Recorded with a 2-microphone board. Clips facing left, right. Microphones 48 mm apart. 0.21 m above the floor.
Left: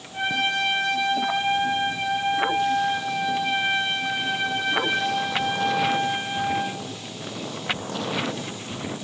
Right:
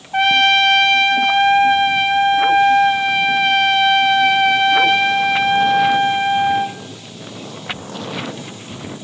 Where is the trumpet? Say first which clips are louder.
Right 11 dB; 75° right (ahead or behind), 4 m.